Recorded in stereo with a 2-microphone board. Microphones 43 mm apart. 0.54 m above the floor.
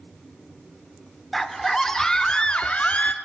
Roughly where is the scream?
Centre.